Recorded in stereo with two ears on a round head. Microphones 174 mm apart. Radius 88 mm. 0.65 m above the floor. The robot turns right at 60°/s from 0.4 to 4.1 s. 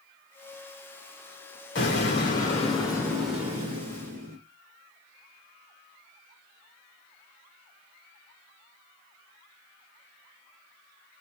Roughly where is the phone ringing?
I don't hear a phone ringing.